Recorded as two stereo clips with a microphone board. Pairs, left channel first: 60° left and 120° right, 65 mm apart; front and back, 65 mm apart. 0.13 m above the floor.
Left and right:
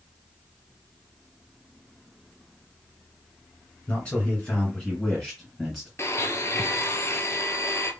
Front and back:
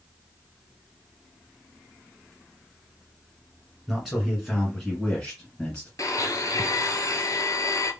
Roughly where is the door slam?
I don't hear a door slam.